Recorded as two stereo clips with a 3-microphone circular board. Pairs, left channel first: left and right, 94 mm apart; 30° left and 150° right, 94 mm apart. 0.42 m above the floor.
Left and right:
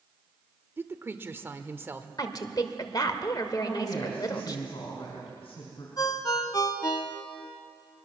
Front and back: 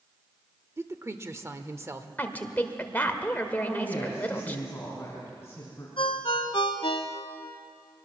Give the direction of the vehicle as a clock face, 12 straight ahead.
No vehicle in this recording.